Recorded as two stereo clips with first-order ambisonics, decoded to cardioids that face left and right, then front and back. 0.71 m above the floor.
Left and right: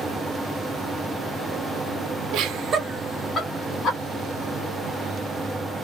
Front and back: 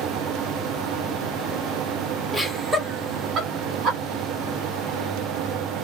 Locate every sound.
2.3 s laughter: 85° right, 1.1 m; by 4.0 s 125° left, 1.5 m